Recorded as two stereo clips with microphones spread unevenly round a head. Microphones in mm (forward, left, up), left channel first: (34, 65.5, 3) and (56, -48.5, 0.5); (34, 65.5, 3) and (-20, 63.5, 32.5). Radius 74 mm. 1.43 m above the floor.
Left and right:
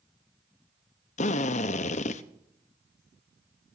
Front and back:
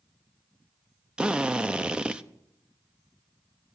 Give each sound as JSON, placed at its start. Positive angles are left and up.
{"t": 1.2, "sound": "a drill", "azimuth_deg": 95, "distance_m": 0.7}